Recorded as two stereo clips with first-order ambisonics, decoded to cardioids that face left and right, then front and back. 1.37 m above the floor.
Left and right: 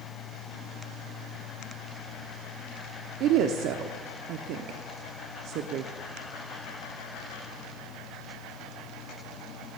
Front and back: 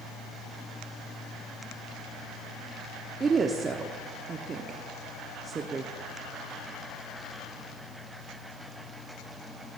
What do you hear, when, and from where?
3.2 s a woman speaking: 110° right, 0.6 m